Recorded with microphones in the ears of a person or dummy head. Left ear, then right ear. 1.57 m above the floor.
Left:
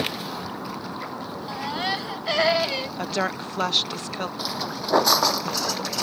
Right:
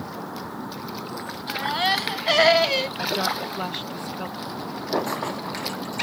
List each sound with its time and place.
1.5 s a baby crying: 10° right (ahead or behind)
3.0 s a woman speaking: 40° left (ahead or behind)
4.4 s footsteps: 55° left (ahead or behind); by 6.0 s 60° left (ahead or behind)